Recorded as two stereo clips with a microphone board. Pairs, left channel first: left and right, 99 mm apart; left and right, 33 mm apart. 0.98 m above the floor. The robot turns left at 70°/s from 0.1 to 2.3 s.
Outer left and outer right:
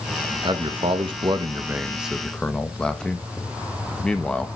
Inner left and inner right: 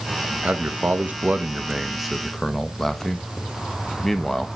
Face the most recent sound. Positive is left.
turn(degrees=170)